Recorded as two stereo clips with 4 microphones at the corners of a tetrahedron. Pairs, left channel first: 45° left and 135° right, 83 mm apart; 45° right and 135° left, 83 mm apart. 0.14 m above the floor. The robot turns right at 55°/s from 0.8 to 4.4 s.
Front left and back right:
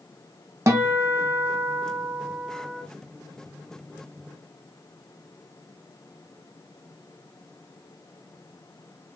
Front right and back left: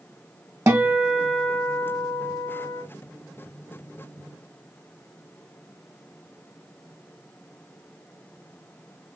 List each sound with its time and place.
0.7 s a guitar: straight behind, 1.3 m; by 2.8 s 70° right, 1.3 m